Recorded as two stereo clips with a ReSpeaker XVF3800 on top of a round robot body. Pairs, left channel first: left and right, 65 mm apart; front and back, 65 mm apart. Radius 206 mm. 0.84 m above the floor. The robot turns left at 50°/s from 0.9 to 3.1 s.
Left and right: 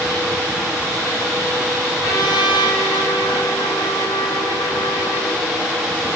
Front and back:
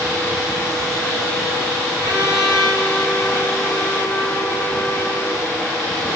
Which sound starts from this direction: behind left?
A trumpet, at 2.0 s.